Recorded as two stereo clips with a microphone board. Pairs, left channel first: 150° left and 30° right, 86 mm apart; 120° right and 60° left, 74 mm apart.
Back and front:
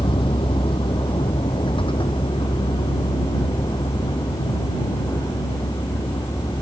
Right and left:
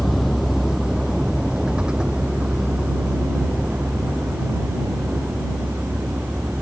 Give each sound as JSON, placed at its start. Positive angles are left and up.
{"t": 0.0, "sound": "a vehicle", "azimuth_deg": 150}